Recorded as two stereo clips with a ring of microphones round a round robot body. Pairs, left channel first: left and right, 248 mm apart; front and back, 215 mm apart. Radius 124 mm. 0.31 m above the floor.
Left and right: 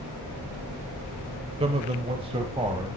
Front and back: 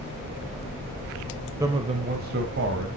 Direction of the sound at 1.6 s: 120° right.